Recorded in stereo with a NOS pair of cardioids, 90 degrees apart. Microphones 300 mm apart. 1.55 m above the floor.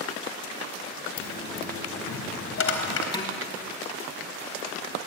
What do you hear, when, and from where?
1.2 s a dropped coin: 50° left, 3.5 m
3.1 s dishes clattering: 15° left, 2.5 m